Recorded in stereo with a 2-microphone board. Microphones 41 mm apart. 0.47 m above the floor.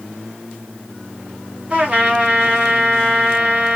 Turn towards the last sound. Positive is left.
turn(degrees=-30)  # may be behind; listen again after turning